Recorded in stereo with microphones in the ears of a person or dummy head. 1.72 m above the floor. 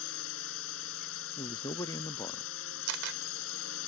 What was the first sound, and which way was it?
A drone, 75° left (ahead or behind).